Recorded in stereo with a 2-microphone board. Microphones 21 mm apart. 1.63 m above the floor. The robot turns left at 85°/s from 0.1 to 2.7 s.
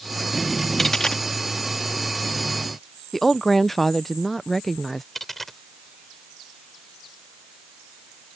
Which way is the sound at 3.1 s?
10° left (ahead or behind).